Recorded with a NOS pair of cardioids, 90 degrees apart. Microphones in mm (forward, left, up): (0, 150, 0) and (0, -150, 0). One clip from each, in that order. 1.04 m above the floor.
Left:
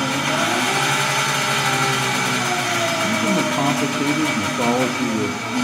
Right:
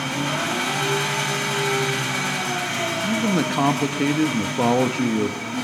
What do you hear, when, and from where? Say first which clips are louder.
0.0 s an engine running: left 5 dB; 30° left, 4.5 m
3.0 s a man speaking: left 3 dB; 10° right, 1.5 m